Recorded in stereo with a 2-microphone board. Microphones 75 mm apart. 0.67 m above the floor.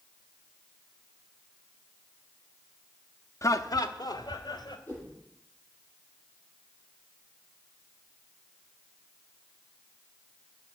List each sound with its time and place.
3.4 s laughter: 40° left (ahead or behind), 0.7 m; by 4.8 s 70° left (ahead or behind), 2.5 m
4.9 s a whoosh: 15° left (ahead or behind), 6.5 m